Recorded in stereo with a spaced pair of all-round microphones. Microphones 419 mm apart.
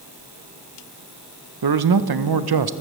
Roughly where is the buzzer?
No buzzer in this recording.